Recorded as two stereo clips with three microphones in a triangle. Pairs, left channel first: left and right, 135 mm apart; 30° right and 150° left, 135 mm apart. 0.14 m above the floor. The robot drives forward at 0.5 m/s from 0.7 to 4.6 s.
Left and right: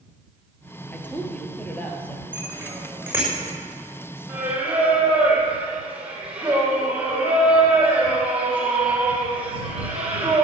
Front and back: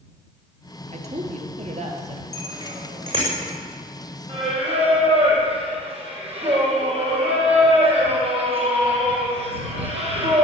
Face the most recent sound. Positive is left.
turn(degrees=-170)